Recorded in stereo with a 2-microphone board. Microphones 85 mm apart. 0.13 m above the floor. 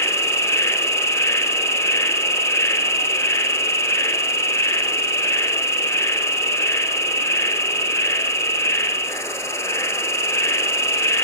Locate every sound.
0.0 s an insect: 35° left (ahead or behind), 1.0 m